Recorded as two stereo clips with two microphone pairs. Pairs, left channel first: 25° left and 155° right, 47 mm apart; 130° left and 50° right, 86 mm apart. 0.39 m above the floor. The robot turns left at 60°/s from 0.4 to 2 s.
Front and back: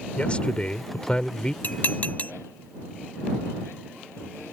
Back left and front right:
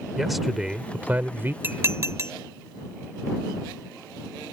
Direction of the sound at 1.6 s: 5° left.